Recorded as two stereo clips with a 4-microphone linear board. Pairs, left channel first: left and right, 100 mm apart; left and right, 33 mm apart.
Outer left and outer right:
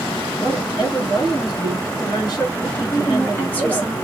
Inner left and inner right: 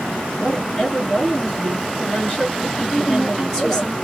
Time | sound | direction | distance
0.4 | a woman speaking | 45° left (ahead or behind) | 1.9 m
2.9 | a woman speaking | 15° left (ahead or behind) | 1.4 m